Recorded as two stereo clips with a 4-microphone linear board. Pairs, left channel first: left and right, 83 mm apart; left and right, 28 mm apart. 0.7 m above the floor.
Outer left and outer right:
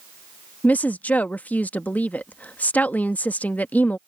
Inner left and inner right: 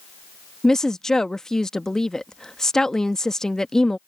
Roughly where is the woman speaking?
Centre.